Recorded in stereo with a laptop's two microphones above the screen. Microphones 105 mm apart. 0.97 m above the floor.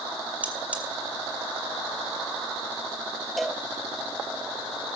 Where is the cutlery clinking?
15° right (ahead or behind), 2 m.